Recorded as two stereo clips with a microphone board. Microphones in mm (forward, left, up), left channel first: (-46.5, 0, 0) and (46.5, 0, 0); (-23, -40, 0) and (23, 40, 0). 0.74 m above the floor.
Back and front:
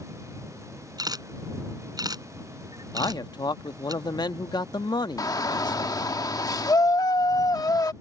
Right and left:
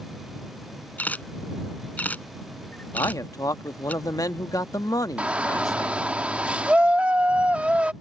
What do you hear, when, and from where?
1.0 s a camera shutter: 45° right
2.9 s a man speaking: 160° right
5.2 s a shout: 135° left